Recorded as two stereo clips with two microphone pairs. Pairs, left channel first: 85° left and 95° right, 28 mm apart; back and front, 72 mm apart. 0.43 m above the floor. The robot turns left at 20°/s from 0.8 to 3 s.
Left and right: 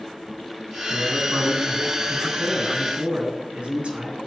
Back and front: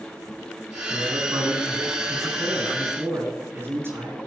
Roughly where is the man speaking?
Ahead.